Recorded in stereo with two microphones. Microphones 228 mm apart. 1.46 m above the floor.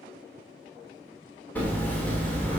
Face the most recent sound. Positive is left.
turn(degrees=5)  # may be behind; listen again after turning